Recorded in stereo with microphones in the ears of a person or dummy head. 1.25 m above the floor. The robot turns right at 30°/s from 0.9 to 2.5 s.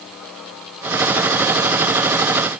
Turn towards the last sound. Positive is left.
No sound to turn to.